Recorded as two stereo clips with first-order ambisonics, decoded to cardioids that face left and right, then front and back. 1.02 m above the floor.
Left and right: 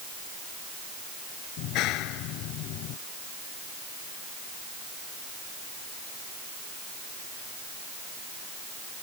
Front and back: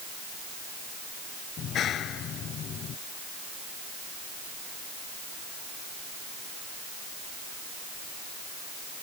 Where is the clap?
55° left.